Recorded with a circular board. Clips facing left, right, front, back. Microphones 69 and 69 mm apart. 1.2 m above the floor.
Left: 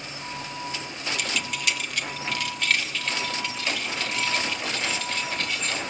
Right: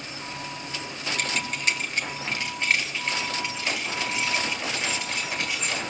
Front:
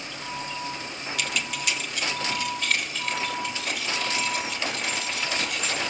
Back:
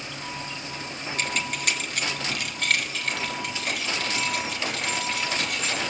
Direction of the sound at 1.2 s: 130° right.